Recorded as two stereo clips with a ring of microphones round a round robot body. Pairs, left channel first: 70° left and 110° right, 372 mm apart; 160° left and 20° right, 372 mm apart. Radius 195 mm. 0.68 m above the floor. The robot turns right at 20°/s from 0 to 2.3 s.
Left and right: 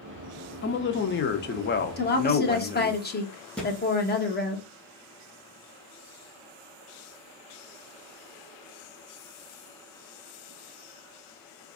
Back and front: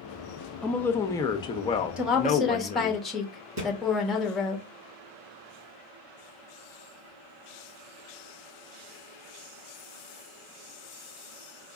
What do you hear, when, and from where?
0.6 s a woman speaking: 75° left, 0.6 m; by 3.0 s 110° left, 0.6 m
2.0 s a woman speaking: 60° left, 0.9 m; by 4.6 s 70° left, 0.9 m
3.6 s a thud: 20° right, 2.5 m